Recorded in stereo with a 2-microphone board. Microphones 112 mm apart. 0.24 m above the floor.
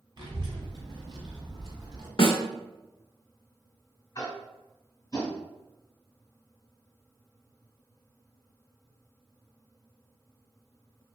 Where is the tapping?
35° left (ahead or behind), 1.5 m.